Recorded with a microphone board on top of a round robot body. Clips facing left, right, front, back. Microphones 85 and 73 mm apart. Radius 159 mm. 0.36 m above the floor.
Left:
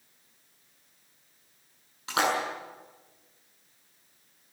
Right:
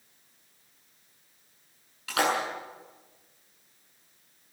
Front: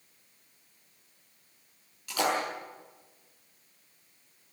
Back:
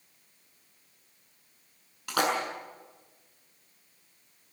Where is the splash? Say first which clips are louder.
Even, back 1 dB; 155° left, 7.5 m.